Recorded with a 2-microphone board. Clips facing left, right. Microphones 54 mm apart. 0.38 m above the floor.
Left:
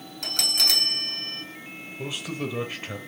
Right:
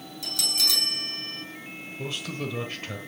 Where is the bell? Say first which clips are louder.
Left 3 dB; 55° left (ahead or behind), 2.5 m.